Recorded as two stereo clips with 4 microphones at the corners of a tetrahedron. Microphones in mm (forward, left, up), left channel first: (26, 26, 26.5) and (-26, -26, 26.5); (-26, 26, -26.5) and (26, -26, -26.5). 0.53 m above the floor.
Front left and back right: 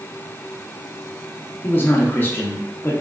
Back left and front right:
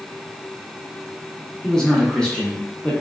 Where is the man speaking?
65° left, 0.7 m.